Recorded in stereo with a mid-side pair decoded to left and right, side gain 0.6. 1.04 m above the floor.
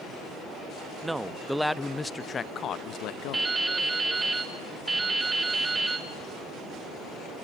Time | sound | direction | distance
1.0 | a man speaking | 10° right | 1.0 m
3.3 | dripping | 15° right | 2.5 m